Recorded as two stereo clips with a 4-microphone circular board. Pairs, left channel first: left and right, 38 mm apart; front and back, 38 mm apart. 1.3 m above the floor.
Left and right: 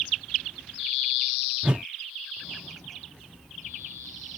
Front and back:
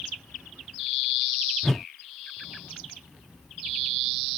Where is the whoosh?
75° right.